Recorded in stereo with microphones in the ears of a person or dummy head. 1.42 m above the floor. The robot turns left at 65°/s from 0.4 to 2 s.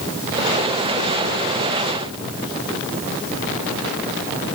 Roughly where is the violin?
I don't hear a violin.